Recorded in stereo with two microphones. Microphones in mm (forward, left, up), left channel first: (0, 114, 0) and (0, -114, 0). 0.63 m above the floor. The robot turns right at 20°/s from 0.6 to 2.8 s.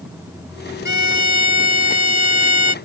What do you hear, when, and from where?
0.8 s a violin: 120° right; by 2.8 s 80° right